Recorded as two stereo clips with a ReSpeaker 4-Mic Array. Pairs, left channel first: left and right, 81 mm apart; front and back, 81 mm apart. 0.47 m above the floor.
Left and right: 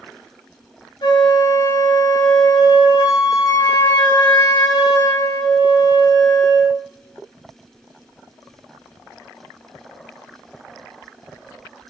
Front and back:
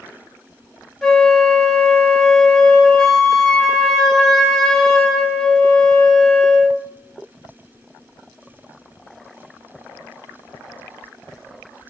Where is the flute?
85° left, 0.5 m.